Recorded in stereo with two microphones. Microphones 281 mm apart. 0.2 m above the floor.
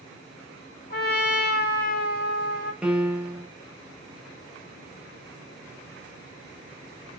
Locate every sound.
0.9 s a trumpet: 35° left (ahead or behind), 1.2 m
2.8 s a piano: 5° right (ahead or behind), 0.6 m